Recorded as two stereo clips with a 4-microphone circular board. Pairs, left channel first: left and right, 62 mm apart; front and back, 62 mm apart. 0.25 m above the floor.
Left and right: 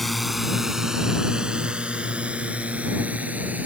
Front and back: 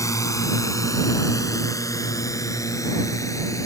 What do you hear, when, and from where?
0.0 s a drone: straight ahead; by 3.7 s 30° right